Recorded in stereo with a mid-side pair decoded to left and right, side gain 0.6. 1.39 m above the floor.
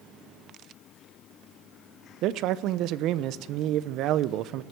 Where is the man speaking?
65° right, 0.9 m.